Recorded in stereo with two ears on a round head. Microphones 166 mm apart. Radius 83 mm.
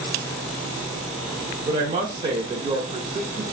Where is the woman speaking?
30° right (ahead or behind), 0.6 m.